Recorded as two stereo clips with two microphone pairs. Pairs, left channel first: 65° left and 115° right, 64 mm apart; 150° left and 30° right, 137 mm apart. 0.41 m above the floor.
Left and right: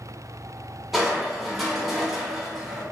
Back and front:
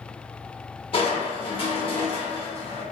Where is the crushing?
150° left, 0.8 m.